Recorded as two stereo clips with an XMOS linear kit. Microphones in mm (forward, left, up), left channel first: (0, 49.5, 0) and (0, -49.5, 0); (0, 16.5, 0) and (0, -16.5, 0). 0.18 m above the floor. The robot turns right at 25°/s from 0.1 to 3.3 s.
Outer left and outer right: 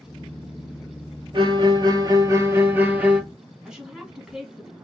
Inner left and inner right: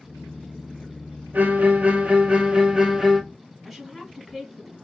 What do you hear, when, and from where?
1.3 s a violin: 60° right, 0.8 m; by 3.2 s 10° right, 0.8 m
3.6 s a woman speaking: 5° right (ahead or behind), 1.3 m